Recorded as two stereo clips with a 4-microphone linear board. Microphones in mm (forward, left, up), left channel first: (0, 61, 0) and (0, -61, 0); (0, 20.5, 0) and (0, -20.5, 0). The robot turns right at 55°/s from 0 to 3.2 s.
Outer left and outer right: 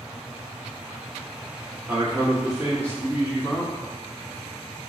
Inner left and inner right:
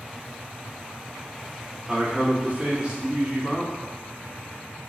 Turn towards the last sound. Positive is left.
turn(degrees=-25)